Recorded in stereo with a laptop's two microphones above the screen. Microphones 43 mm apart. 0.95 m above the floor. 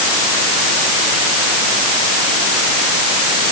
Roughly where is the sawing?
I don't hear sawing.